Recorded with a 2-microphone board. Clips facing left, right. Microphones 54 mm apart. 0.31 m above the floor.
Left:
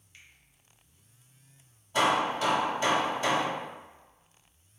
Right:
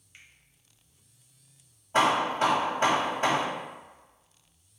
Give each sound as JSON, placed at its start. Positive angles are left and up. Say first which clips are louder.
{"t": 0.1, "sound": "a finger snap", "louder": "right 1 dB", "side_deg": -20, "distance_m": 0.9}
{"t": 1.9, "sound": "hammering", "louder": "right 2 dB", "side_deg": -40, "distance_m": 1.4}